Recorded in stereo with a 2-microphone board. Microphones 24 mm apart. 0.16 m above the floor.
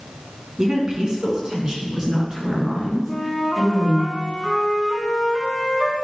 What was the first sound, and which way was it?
A woman speaking, 30° right (ahead or behind).